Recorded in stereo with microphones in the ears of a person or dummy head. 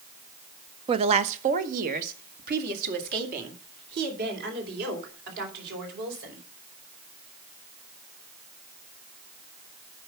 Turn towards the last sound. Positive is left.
turn(degrees=-55)  # may be behind; listen again after turning